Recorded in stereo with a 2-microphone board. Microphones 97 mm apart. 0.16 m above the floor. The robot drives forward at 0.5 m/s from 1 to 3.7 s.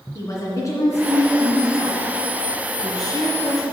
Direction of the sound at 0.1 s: 35° left (ahead or behind).